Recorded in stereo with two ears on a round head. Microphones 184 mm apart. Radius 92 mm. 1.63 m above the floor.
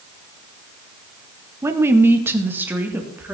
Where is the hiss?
No hiss in this recording.